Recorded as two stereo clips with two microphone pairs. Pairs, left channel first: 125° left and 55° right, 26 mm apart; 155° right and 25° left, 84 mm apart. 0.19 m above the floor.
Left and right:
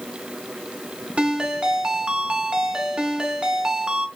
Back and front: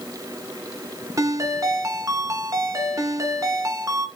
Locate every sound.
1.2 s a ringtone: 15° right, 0.7 m